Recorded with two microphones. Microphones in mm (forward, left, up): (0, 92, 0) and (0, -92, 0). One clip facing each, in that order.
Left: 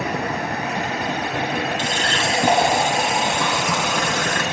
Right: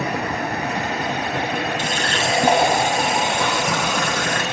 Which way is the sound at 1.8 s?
40° right (ahead or behind).